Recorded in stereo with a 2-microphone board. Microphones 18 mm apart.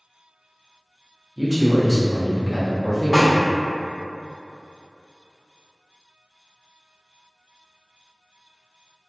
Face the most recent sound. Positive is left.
turn(degrees=-10)  # may be behind; listen again after turning